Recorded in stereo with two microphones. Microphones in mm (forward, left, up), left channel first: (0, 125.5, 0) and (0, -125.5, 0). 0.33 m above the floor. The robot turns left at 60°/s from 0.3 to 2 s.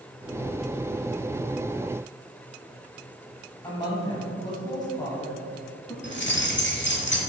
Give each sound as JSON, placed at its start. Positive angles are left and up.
{"t": 3.6, "sound": "a woman speaking", "side_deg": 15, "distance_m": 1.6}
{"t": 6.0, "sound": "keys jangling", "side_deg": 45, "distance_m": 1.0}